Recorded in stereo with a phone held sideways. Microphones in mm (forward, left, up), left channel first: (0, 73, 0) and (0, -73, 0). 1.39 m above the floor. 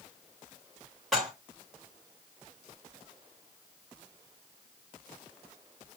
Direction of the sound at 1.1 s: Centre (ahead or behind).